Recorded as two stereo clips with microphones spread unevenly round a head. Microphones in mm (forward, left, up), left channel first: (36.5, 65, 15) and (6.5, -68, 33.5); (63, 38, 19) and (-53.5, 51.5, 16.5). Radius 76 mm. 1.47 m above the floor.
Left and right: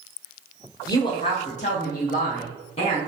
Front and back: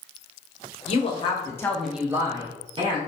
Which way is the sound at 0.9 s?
10° left.